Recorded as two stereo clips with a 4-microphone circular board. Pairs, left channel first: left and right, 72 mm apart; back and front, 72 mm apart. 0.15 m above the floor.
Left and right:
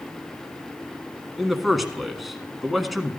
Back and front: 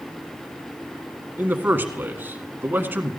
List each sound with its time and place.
1.4 s a man speaking: 5° right, 1.3 m